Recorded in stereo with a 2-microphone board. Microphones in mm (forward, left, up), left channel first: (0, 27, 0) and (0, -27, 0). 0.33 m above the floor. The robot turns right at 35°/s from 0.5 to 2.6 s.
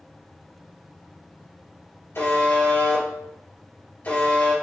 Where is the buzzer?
50° left (ahead or behind), 1.9 m; by 4.5 s 35° left (ahead or behind), 1.9 m.